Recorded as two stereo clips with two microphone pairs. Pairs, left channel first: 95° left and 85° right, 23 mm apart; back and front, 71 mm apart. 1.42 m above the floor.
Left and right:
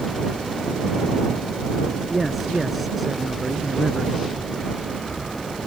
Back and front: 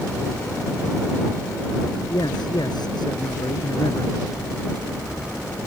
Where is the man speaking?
175° right; by 4.2 s straight behind.